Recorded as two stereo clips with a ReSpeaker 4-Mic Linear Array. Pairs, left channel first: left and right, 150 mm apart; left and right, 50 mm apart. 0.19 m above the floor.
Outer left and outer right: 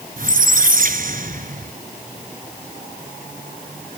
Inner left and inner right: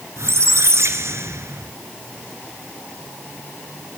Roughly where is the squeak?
Right.